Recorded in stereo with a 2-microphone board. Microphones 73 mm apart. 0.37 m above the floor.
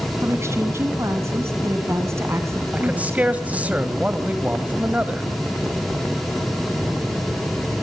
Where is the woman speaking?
35° right (ahead or behind), 4 m.